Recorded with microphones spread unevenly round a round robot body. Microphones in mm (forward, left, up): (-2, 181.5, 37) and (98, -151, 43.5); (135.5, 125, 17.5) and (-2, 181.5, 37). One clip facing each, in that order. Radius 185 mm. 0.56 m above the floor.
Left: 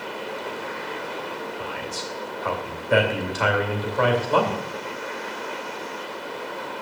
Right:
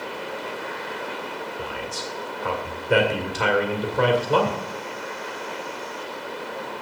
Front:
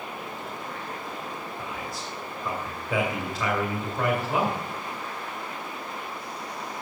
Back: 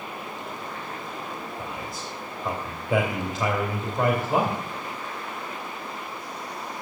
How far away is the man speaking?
About 2 m.